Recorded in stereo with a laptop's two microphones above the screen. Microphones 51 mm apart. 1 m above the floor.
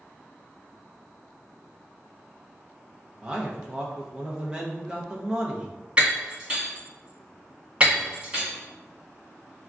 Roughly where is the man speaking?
Right.